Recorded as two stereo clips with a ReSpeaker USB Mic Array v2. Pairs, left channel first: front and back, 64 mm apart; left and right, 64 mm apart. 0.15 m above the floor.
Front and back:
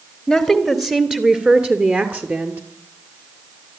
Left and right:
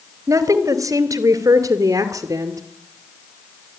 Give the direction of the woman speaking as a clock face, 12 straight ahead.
3 o'clock.